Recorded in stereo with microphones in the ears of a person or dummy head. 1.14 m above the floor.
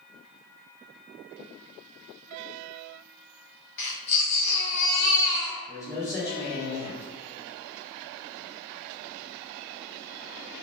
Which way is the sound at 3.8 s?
35° left (ahead or behind).